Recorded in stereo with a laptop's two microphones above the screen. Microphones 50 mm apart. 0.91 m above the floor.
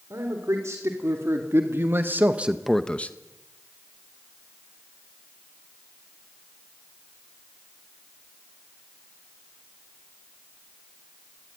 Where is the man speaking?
75° right (ahead or behind), 3.5 m; by 3.1 s 35° left (ahead or behind), 1.1 m.